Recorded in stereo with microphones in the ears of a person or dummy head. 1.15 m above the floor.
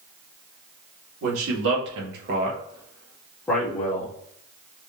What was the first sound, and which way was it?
A man speaking, 85° right.